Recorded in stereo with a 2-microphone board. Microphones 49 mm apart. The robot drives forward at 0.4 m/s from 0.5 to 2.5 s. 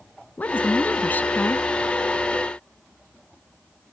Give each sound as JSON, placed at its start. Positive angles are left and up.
{"t": 0.4, "sound": "a woman speaking", "side_deg": 35}